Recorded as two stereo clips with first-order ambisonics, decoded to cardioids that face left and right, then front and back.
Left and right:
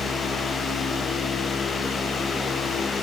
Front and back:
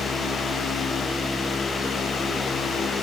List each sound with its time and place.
Only background noise.